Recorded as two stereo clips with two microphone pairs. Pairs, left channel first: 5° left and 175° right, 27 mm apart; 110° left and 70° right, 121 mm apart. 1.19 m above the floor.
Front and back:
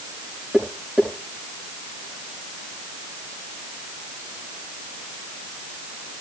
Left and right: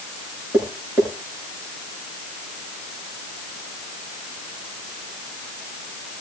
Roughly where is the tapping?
Behind right.